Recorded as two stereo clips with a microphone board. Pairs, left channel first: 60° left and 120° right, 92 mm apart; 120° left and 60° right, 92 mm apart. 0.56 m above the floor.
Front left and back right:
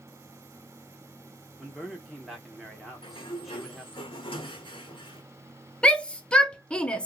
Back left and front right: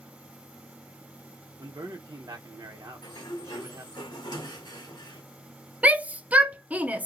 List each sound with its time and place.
1.6 s a man speaking: 30° right, 1.1 m
3.0 s a sliding door: 80° left, 1.4 m
5.8 s a shout: 5° right, 0.6 m